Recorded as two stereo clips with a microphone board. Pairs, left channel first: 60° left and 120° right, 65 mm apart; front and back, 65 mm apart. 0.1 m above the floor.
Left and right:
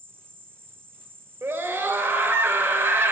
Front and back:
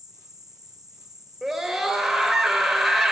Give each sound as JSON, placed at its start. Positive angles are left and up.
{"t": 0.0, "sound": "an insect", "azimuth_deg": -175, "distance_m": 0.8}
{"t": 1.4, "sound": "a scream", "azimuth_deg": -90, "distance_m": 2.0}